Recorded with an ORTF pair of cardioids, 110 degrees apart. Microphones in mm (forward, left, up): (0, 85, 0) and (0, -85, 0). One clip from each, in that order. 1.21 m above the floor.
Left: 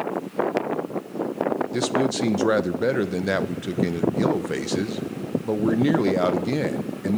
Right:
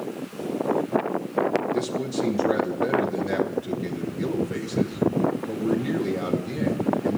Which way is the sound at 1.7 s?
50° left.